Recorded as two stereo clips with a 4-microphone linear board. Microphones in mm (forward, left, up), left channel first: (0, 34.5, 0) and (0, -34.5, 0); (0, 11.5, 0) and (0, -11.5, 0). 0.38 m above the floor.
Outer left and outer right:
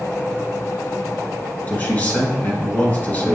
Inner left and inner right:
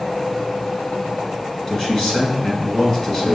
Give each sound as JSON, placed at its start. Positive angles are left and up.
{"t": 1.7, "sound": "a man speaking", "side_deg": 25, "distance_m": 3.5}